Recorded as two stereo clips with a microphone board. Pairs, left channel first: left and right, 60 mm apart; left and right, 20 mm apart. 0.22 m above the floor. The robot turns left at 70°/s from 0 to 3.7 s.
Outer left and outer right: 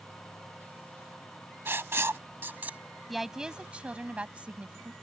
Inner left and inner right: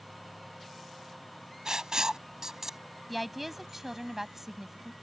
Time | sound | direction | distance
1.6 | writing | 40° right (ahead or behind) | ?
3.1 | a woman speaking | straight ahead | ?